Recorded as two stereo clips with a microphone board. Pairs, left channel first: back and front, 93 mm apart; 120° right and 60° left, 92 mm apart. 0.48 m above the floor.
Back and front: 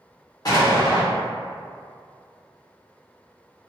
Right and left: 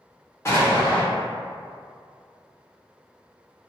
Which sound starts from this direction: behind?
An explosion, at 0.5 s.